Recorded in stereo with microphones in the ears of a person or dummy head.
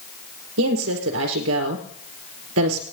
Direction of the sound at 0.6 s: 80° right.